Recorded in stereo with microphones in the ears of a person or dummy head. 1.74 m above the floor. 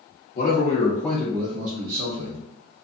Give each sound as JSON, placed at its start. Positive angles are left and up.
{"t": 0.3, "sound": "a man speaking", "side_deg": 50, "distance_m": 0.8}